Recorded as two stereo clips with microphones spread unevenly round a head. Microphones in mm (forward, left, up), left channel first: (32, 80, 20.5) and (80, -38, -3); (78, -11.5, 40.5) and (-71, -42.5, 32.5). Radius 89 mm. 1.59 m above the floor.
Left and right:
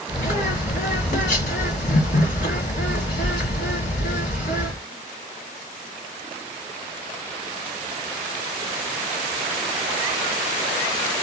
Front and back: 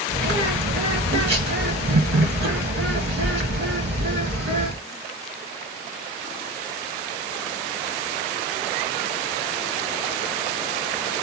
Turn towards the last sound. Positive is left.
turn(degrees=160)